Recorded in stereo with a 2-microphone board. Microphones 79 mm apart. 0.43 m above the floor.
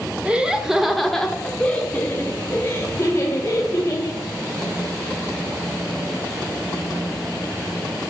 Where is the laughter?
15° right (ahead or behind), 1.0 m; by 4.2 s 35° left (ahead or behind), 1.8 m.